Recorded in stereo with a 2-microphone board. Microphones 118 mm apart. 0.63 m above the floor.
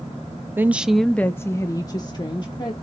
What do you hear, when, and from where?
0.6 s a woman speaking: 15° right (ahead or behind), 0.5 m; by 2.7 s 35° left (ahead or behind), 1.2 m